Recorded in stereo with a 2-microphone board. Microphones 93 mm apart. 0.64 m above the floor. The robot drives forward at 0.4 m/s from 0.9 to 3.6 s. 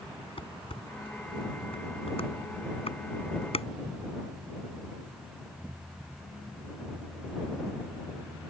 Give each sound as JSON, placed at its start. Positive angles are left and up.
{"t": 0.4, "sound": "dishes clattering", "side_deg": 70}